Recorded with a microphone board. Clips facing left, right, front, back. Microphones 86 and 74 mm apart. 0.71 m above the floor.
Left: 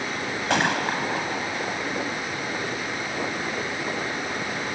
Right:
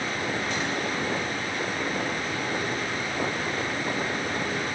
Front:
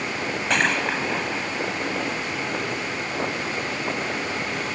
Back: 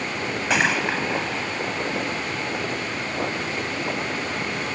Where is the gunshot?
95° left.